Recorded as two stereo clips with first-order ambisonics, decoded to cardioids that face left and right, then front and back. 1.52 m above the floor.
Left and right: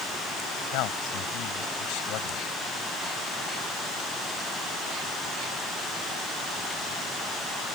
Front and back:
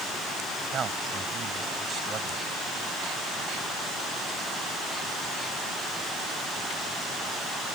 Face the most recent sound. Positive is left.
turn(degrees=115)